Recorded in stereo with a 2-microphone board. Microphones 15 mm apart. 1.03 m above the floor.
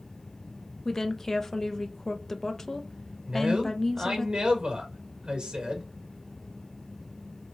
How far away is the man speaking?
About 1.4 m.